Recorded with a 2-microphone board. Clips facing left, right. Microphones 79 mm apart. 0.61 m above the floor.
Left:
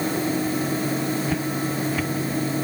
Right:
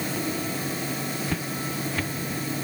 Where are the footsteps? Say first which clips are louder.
Left 6 dB; 5° left (ahead or behind).